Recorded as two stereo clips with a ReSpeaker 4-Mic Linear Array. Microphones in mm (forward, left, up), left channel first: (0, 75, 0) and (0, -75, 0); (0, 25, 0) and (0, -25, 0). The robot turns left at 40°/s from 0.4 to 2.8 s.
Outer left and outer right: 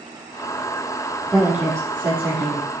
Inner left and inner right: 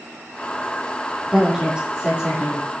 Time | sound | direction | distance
1.3 | a woman speaking | straight ahead | 3 m